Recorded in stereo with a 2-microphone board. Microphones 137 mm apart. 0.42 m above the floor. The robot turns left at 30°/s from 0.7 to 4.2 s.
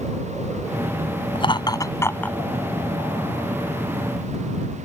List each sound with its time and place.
1.4 s laughter: 40° left (ahead or behind); by 2.4 s 10° left (ahead or behind)